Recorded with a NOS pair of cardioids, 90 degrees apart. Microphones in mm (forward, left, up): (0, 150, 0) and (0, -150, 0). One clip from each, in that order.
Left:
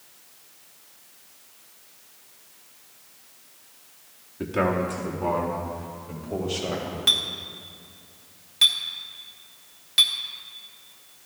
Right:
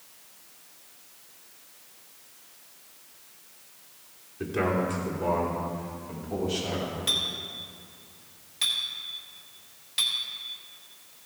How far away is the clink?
About 1.7 m.